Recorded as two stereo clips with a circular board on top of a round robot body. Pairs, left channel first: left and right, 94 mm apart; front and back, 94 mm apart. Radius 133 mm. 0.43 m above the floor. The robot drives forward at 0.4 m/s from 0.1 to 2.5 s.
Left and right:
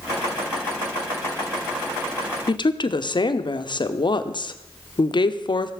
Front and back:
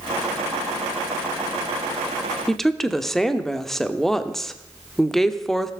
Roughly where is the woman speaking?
Left.